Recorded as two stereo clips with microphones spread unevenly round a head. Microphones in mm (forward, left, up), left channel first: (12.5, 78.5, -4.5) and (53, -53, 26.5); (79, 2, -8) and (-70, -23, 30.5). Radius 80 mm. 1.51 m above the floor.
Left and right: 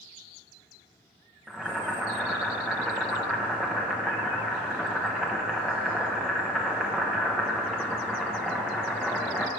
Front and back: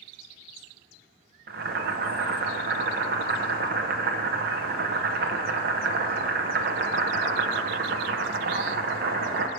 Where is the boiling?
155° right, 0.9 m.